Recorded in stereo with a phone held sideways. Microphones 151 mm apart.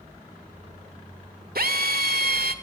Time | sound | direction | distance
1.6 | a drill | 80° right | 1.7 m